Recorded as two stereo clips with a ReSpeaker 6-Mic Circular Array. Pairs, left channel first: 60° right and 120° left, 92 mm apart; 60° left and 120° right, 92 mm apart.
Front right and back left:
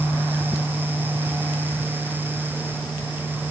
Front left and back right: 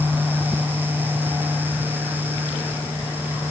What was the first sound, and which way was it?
Only background noise.